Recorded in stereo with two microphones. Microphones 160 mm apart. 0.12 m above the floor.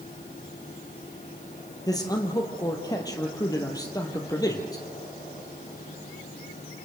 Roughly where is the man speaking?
Left.